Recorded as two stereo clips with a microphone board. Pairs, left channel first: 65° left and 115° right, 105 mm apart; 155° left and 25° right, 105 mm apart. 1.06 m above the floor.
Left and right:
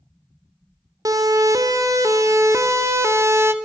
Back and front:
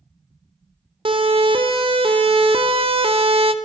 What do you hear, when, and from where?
1.1 s a siren: 55° right, 3.5 m; by 3.5 s 45° right, 1.7 m